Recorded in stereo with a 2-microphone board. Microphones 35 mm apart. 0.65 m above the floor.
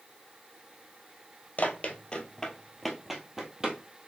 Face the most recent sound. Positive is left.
turn(degrees=-20)  # may be behind; listen again after turning